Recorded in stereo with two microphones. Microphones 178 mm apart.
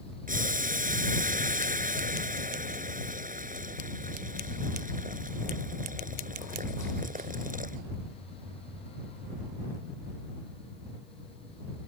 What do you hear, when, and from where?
0.3 s boiling: 50° right (ahead or behind)